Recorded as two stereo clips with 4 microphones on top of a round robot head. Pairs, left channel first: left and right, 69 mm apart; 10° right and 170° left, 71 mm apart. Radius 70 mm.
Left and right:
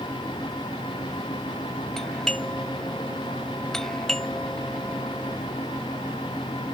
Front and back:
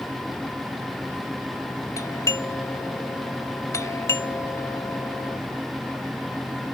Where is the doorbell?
10° left.